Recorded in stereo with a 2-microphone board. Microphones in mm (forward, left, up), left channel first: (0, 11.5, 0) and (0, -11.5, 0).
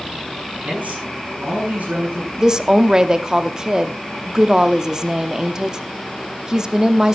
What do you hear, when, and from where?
0.6 s a man speaking: 85° right, 7.5 m; by 2.3 s 80° right, 8.5 m
2.4 s a woman speaking: 25° right (ahead or behind), 0.8 m